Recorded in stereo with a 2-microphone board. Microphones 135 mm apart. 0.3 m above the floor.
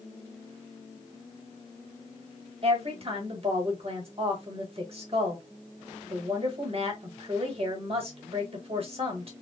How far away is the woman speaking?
About 1.4 m.